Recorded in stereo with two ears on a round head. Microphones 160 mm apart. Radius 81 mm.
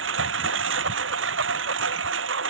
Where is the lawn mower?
80° right.